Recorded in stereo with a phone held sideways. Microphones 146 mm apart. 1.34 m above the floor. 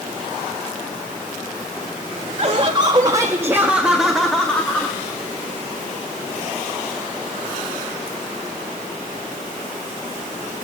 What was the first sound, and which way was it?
Laughter, 45° right (ahead or behind).